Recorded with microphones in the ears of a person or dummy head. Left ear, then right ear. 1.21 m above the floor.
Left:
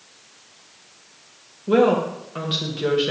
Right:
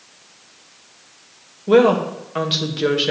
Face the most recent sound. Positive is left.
turn(degrees=-20)  # may be behind; listen again after turning